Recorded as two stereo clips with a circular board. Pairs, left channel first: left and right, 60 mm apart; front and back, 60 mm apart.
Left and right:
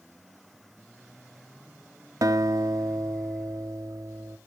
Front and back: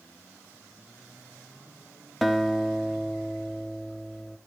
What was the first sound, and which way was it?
A guitar, 85° right.